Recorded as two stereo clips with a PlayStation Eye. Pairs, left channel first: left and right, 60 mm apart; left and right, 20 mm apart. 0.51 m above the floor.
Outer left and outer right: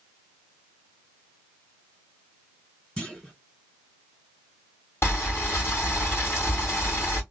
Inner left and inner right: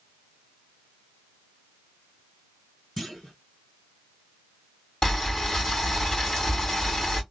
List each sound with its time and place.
3.0 s a clunk: 20° left (ahead or behind), 2.5 m
5.0 s boiling: 45° left (ahead or behind), 2 m